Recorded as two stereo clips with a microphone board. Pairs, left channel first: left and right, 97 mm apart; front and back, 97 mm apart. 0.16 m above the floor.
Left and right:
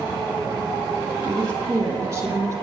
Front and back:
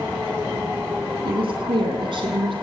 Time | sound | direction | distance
1.2 | a woman speaking | 140° right | 7 m